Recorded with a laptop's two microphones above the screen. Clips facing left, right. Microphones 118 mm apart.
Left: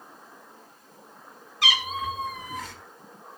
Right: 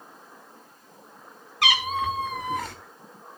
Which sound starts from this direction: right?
A cat meowing, at 1.6 s.